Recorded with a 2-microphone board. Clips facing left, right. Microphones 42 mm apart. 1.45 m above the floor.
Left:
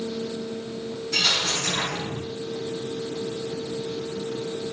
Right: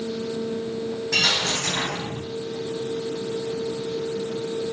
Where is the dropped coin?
80° right, 5 m.